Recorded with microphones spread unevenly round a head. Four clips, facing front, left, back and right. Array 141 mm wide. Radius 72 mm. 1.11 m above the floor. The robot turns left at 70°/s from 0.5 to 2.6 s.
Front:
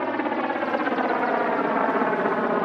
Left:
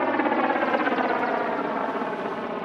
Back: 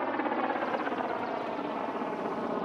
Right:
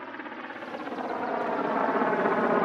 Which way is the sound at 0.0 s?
60° left.